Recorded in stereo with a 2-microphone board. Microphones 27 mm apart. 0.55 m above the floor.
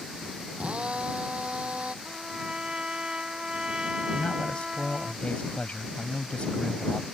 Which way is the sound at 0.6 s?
50° right (ahead or behind).